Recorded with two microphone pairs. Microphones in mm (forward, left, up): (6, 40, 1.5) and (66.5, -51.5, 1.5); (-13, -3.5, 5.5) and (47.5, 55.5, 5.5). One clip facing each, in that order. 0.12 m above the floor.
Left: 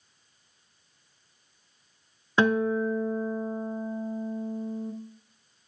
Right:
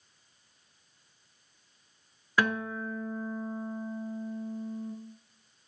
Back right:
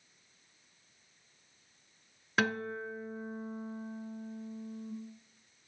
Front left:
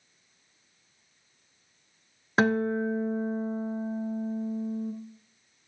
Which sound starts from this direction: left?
A guitar, at 2.4 s.